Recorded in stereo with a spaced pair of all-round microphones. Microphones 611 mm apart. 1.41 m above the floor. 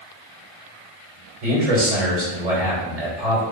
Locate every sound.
1.4 s a man speaking: 70° right (ahead or behind), 2 m